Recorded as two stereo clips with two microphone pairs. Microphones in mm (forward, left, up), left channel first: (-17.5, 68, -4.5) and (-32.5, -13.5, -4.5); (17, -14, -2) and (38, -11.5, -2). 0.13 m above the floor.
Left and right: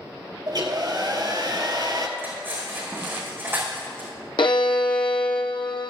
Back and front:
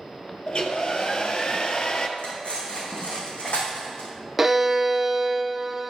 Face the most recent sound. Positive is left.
turn(degrees=85)